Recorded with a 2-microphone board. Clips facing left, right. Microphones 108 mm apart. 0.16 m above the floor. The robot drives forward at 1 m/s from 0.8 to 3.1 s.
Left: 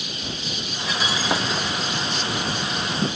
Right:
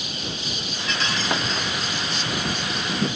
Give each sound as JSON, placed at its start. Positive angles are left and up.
{"t": 0.9, "sound": "breaking glass", "side_deg": 10}